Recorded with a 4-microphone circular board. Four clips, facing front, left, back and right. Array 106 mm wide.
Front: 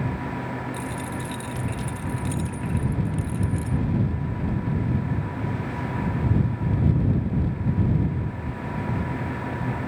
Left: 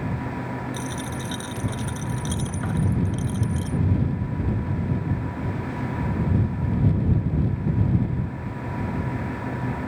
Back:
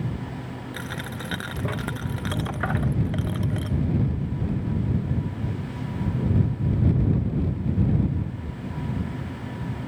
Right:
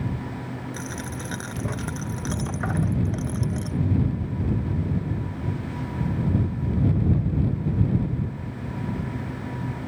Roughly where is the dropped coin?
Behind.